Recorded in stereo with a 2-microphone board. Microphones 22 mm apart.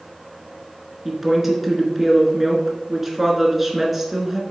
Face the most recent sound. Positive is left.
turn(degrees=-5)  # may be behind; listen again after turning